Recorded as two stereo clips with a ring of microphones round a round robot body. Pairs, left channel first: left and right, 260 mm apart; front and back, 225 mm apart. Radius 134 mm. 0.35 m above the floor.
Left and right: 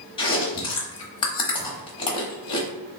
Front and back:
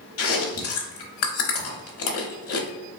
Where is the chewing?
20° left, 0.9 m.